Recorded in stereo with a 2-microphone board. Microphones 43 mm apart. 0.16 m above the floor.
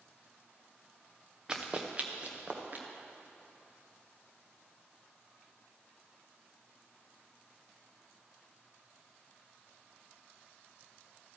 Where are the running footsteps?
20° right (ahead or behind), 1.2 m; by 2.9 s 40° right (ahead or behind), 2 m.